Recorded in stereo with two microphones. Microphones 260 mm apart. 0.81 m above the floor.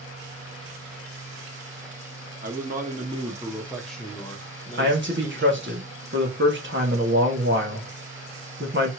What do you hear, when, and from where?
2.4 s a man speaking: 35° right (ahead or behind), 1.3 m; by 5.8 s 45° left (ahead or behind), 1.4 m
4.8 s a man speaking: 45° right (ahead or behind), 1.3 m